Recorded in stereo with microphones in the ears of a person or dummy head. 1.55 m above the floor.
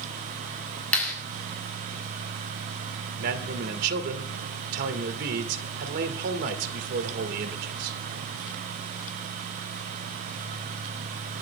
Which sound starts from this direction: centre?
A clap, at 0.9 s.